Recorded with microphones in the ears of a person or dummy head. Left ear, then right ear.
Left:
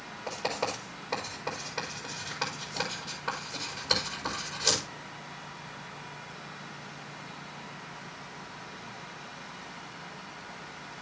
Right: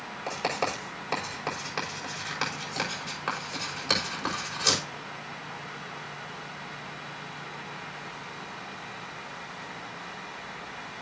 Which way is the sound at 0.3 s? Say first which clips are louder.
Right 3 dB; 75° right (ahead or behind).